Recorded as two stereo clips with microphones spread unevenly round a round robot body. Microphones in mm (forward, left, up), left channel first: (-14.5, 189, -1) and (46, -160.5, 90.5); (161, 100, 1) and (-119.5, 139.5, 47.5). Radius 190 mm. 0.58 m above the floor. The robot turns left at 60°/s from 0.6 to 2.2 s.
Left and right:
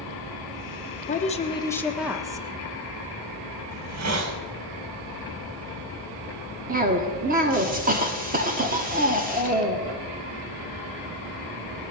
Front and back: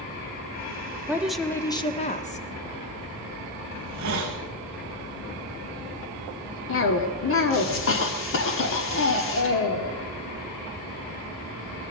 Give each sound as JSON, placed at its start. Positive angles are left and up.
{"t": 1.1, "sound": "a woman speaking", "azimuth_deg": 85, "distance_m": 1.3}
{"t": 3.7, "sound": "a hiss", "azimuth_deg": -130, "distance_m": 1.4}
{"t": 6.7, "sound": "a cough", "azimuth_deg": -5, "distance_m": 1.2}